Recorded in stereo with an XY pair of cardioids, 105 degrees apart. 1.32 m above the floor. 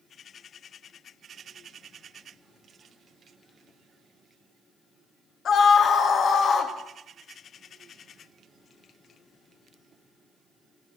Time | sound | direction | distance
5.5 | a scream | 55° left | 2.0 m